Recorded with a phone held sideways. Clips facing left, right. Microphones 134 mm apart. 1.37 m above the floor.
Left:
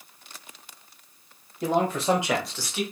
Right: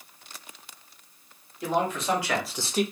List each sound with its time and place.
1.6 s a man speaking: 40° left (ahead or behind), 1.5 m; by 2.8 s 45° right (ahead or behind), 0.6 m